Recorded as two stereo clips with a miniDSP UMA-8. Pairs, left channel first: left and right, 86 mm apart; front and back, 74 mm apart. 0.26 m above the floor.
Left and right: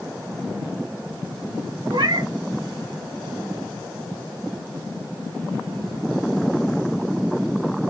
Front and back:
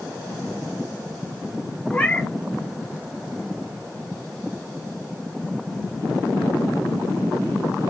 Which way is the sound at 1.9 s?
75° right.